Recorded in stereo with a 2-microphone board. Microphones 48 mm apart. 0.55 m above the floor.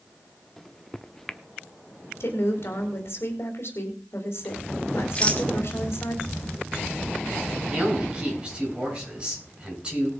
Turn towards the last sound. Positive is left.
turn(degrees=-25)  # may be behind; listen again after turning